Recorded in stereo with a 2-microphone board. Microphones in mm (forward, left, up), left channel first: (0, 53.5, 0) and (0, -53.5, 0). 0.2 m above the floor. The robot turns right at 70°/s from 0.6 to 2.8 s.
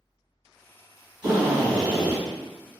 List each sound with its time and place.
1.2 s a drill: 20° right, 1.7 m; by 2.2 s 50° left, 1.7 m